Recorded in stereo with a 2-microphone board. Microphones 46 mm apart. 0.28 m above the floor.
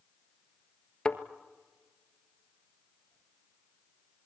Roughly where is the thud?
Centre.